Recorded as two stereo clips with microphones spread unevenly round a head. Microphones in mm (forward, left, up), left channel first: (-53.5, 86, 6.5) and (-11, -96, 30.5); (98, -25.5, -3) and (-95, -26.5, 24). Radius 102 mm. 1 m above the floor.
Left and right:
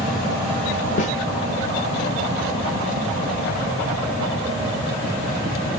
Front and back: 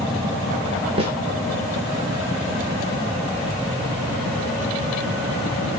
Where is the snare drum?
140° left, 0.8 m.